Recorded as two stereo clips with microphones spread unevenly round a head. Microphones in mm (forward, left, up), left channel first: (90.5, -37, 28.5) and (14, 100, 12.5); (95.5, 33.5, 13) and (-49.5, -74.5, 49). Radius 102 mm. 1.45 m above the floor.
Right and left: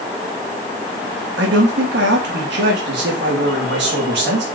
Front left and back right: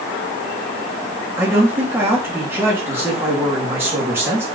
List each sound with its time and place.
1.4 s a man speaking: 140° left, 2.5 m